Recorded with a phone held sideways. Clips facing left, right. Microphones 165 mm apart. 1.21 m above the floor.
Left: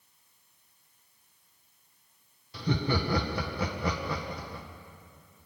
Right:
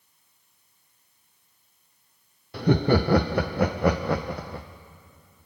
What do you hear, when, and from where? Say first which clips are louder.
2.5 s laughter: right 9 dB; 60° right (ahead or behind), 0.7 m